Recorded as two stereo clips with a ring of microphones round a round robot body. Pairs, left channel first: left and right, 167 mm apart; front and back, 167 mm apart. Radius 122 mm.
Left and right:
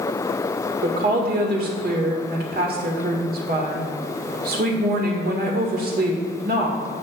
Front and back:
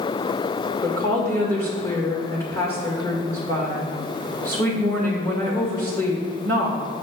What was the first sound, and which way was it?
A woman speaking, 75° right.